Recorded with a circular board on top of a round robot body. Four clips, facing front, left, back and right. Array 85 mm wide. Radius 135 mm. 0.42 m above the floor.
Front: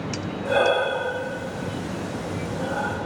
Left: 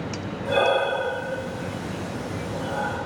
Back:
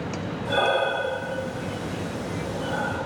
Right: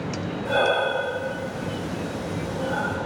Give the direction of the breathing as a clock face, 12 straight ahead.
12 o'clock.